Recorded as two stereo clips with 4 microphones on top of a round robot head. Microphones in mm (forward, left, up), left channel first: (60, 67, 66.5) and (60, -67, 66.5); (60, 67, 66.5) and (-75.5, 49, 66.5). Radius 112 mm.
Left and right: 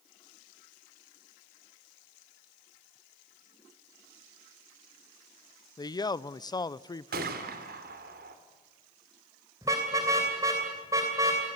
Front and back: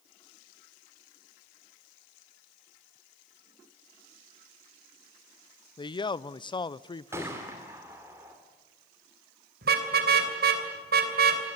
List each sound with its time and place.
5.8 s a man speaking: 45° left, 0.7 m
7.1 s a gunshot: 95° right, 2 m
9.6 s a car horn: 165° right, 3 m